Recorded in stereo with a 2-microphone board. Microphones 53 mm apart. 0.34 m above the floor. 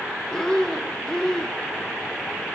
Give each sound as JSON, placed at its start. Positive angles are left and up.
{"t": 0.3, "sound": "breathing", "side_deg": 15, "distance_m": 0.6}